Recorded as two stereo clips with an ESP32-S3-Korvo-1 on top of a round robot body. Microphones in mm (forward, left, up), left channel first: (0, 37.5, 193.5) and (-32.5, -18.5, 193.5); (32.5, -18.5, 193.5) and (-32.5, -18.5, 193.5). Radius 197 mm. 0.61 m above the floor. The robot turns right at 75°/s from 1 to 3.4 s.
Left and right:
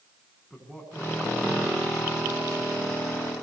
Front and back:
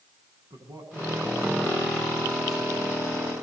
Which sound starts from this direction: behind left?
A man speaking, at 0.5 s.